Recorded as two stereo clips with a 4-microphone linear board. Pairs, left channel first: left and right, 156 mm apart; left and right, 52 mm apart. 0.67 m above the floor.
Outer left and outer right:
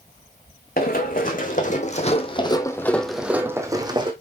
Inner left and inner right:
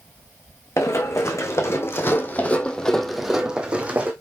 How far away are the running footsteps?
About 2.0 m.